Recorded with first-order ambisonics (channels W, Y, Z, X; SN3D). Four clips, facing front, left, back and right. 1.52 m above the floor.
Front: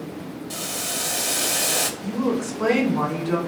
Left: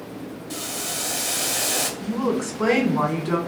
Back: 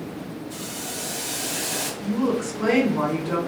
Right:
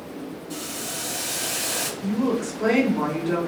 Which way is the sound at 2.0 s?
95° left.